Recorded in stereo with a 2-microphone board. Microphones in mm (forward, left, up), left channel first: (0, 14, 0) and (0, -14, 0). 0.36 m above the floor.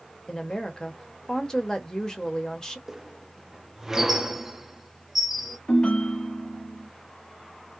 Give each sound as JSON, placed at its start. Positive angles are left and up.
{"t": 0.3, "sound": "a woman speaking", "side_deg": 25, "distance_m": 0.9}
{"t": 2.9, "sound": "a squeak", "side_deg": -15, "distance_m": 0.5}
{"t": 5.7, "sound": "a ringtone", "side_deg": 40, "distance_m": 1.6}